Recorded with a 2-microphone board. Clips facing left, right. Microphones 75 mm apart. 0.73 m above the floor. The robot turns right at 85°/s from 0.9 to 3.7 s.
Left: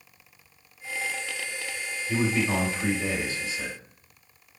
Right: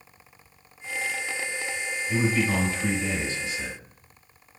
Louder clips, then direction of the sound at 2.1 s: Right 1 dB; 5° right.